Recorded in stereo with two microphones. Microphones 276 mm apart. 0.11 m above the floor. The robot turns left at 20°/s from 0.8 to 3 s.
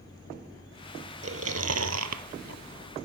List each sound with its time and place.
1.2 s chewing: 55° right (ahead or behind), 0.5 m; by 2.6 s 75° right (ahead or behind), 0.5 m